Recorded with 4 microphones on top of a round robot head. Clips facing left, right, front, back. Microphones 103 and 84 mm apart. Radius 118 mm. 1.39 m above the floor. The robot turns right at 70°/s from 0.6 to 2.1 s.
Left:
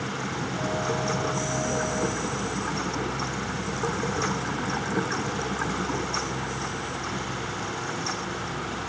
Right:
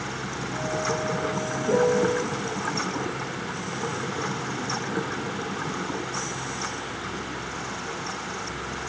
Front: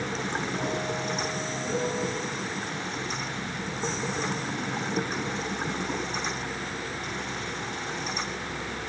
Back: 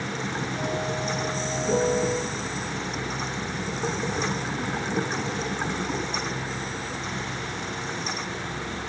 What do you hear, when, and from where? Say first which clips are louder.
1.7 s a piano: right 12 dB, back 7 dB; 140° right, 2.5 m; by 2.2 s 110° right, 2.5 m